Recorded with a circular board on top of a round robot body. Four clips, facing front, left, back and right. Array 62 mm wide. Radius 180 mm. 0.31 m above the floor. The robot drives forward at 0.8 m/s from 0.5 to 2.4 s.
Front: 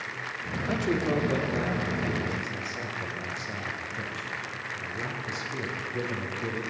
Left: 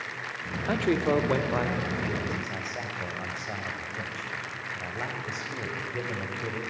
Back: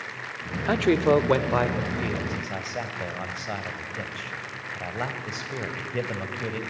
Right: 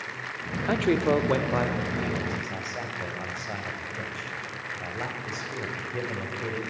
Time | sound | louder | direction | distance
0.7 | a man speaking | right 2 dB, back 7 dB | 170° right | 1.0 m